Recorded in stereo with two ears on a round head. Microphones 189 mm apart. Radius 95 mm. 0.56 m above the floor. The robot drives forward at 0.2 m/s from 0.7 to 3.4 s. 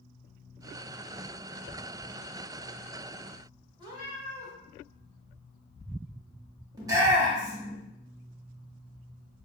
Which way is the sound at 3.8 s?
25° right (ahead or behind).